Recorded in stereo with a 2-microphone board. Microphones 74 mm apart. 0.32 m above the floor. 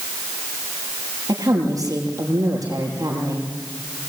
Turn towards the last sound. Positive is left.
turn(degrees=-55)  # may be behind; listen again after turning